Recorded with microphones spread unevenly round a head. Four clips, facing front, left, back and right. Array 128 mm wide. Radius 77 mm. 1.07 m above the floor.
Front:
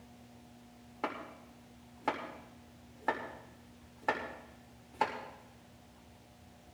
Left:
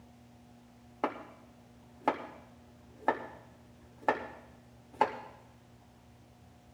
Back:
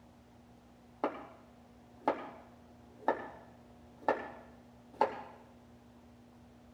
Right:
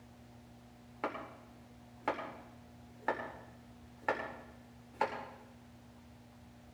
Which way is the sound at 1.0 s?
130° left.